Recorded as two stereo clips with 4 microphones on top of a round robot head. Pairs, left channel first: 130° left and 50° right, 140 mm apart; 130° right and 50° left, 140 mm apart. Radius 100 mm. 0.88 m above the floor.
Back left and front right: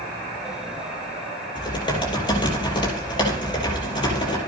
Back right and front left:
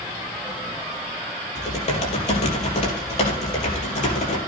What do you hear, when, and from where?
1.6 s typing on a keyboard: 170° right, 5 m